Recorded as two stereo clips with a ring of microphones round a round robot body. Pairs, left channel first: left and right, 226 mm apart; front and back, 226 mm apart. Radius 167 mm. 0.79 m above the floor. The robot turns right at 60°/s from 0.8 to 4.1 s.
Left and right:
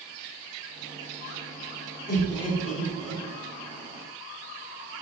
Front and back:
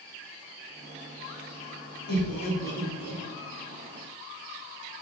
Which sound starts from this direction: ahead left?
Laughter, at 2.1 s.